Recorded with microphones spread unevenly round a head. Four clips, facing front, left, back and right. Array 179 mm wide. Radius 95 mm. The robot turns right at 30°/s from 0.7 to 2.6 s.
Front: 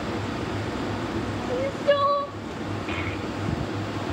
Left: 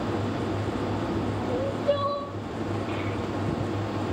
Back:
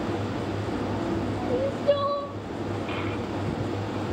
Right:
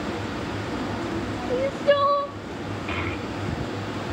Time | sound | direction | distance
1.5 | crying | 85° right | 0.6 m
2.9 | a child speaking | 90° right | 1.8 m